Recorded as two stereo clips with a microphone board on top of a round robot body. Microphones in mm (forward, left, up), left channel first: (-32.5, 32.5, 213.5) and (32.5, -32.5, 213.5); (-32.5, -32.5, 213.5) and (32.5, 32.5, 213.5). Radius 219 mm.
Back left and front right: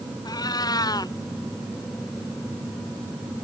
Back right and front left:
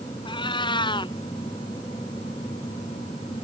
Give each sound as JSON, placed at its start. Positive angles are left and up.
{"t": 0.2, "sound": "a cat meowing", "azimuth_deg": -175}